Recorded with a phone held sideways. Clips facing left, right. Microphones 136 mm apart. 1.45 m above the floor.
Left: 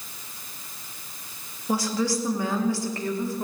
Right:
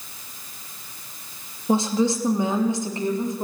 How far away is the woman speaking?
About 2.5 m.